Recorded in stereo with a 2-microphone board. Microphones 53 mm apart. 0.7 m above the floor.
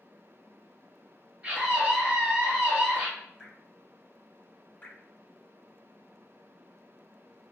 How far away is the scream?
About 1.3 m.